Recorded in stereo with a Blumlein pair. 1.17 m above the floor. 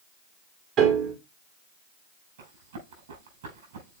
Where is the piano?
35° right, 1.9 m.